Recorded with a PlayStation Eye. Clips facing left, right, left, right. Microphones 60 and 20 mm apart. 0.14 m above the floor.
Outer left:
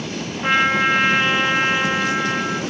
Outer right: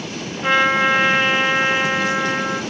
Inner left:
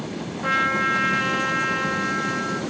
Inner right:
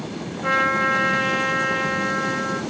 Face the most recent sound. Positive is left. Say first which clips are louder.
# outer right 1 dB, inner right 2 dB
turn(degrees=10)  # may be behind; listen again after turning